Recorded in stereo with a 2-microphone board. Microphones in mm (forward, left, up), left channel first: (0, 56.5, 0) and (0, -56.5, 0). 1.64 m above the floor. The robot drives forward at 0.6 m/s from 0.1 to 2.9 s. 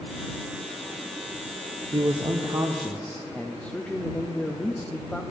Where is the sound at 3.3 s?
10° left (ahead or behind), 0.6 m.